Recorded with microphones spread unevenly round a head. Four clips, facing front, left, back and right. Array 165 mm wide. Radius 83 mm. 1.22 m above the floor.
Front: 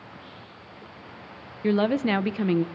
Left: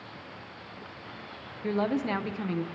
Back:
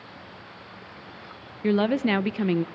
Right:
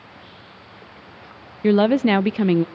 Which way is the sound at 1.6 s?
90° right.